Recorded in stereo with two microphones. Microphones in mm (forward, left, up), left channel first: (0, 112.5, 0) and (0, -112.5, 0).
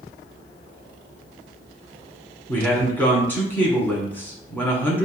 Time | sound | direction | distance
2.5 | a man speaking | 10° left (ahead or behind) | 1.6 m